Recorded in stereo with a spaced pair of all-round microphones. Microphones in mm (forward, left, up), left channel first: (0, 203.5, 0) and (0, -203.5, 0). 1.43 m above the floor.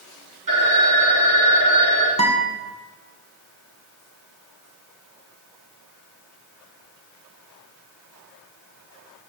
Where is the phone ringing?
55° right (ahead or behind), 1.7 m.